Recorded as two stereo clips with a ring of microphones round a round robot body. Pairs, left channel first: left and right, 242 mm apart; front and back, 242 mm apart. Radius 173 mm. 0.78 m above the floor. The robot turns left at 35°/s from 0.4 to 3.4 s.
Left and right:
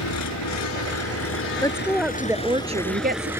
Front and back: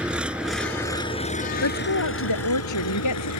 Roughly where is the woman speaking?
Ahead.